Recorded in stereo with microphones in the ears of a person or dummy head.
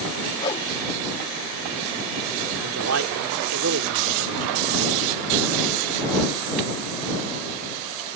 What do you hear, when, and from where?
0.4 s a whoosh: 25° left (ahead or behind)
2.6 s a man speaking: 80° right